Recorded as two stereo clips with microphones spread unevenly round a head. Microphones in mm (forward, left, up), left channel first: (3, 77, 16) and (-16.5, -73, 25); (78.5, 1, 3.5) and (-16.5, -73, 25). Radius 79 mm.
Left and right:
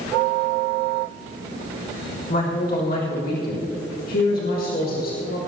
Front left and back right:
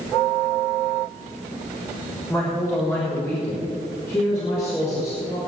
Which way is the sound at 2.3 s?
115° left.